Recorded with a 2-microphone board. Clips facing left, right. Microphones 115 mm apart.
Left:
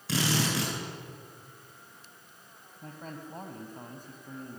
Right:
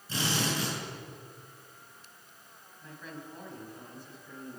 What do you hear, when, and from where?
0.1 s a drill: 80° left, 9.5 m
2.8 s a man speaking: 45° left (ahead or behind), 4 m